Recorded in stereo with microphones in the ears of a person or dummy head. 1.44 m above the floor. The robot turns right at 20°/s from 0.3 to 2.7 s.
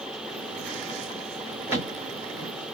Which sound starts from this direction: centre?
A thud, at 1.7 s.